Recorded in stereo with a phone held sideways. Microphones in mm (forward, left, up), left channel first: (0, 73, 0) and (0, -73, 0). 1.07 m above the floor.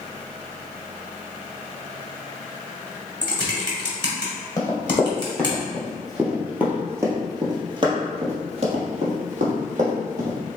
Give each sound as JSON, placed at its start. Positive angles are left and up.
{"t": 3.2, "sound": "typing on a keyboard", "side_deg": 35, "distance_m": 1.5}
{"t": 4.6, "sound": "running footsteps", "side_deg": 20, "distance_m": 1.8}